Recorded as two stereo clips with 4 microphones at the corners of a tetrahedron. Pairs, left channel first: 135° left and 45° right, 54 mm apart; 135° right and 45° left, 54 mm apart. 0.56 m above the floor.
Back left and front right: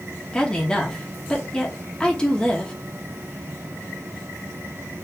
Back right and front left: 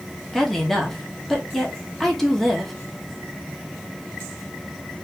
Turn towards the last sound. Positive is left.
turn(degrees=150)